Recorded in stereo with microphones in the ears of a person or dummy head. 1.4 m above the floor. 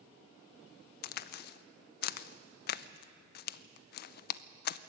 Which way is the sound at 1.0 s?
60° left (ahead or behind).